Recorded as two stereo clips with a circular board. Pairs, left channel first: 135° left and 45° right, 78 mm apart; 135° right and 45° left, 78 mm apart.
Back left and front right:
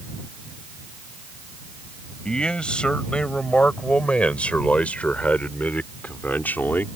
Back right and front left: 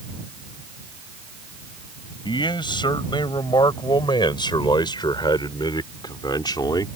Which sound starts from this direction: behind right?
A man speaking, at 2.2 s.